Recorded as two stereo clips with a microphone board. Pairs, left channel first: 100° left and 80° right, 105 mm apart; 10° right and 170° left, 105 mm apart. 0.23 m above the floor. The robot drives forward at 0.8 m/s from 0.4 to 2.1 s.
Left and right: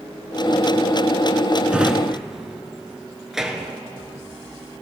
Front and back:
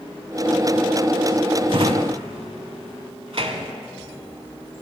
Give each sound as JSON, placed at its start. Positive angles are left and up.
{"t": 1.7, "sound": "a drawer", "azimuth_deg": -155, "distance_m": 0.5}